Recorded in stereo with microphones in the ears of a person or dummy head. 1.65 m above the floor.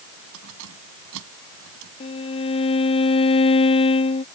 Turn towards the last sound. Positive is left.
turn(degrees=30)  # may be behind; listen again after turning